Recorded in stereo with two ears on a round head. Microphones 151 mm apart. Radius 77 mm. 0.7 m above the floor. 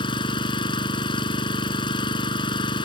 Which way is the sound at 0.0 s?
30° left (ahead or behind).